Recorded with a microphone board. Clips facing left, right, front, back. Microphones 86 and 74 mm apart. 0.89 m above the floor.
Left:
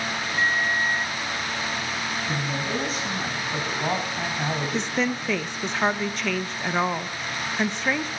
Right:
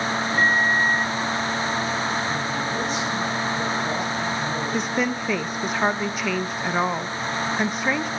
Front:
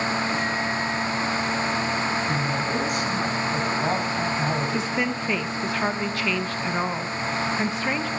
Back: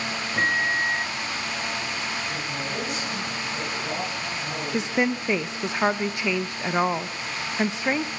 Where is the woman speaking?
165° right, 0.9 m.